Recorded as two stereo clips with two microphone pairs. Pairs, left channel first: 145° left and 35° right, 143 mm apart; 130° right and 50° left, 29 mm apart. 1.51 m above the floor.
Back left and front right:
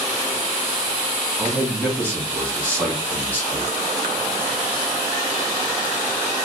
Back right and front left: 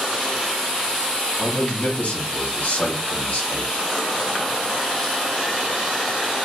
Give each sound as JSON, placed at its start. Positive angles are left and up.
{"t": 1.4, "sound": "a man speaking", "azimuth_deg": -140, "distance_m": 2.0}